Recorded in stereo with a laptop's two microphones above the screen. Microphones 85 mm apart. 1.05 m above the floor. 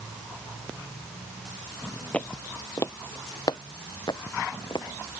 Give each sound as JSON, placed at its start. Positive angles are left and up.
{"t": 2.1, "sound": "footsteps", "side_deg": 15}